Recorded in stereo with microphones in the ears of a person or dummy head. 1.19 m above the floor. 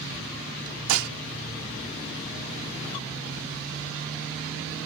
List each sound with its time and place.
0.9 s dishes clattering: 85° right